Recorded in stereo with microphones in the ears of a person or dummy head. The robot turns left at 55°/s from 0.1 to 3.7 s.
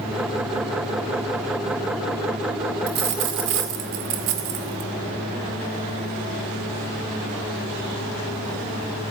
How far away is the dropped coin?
About 2 m.